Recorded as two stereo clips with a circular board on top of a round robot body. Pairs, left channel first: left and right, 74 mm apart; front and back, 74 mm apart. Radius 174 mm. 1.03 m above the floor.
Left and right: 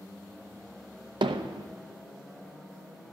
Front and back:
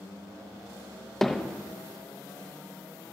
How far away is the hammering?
About 0.6 m.